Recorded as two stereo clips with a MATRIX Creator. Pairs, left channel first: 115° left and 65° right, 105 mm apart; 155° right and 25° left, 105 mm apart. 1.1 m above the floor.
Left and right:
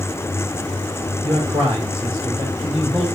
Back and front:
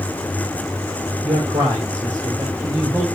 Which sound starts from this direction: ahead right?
A man speaking, at 1.2 s.